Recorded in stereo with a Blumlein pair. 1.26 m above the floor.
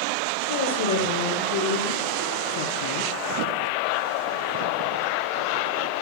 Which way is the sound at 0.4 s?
60° left.